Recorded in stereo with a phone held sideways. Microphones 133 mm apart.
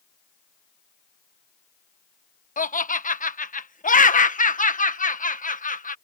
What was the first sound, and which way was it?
Laughter, 70° left (ahead or behind).